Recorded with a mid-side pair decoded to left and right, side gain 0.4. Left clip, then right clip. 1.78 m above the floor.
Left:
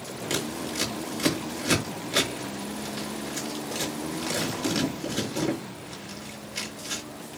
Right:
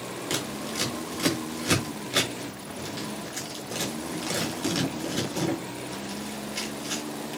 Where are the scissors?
5° right, 5.5 m.